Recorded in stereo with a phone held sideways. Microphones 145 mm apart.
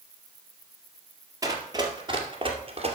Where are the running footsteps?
25° right (ahead or behind), 1.9 m; by 3.0 s 45° right (ahead or behind), 2 m.